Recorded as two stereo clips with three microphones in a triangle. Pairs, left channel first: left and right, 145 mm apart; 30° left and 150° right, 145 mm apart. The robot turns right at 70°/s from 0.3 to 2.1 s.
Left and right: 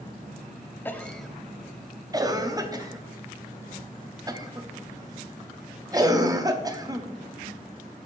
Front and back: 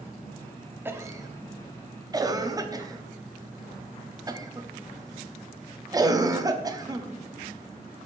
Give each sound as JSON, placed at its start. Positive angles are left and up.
{"t": 0.8, "sound": "a cough", "azimuth_deg": 150, "distance_m": 0.6}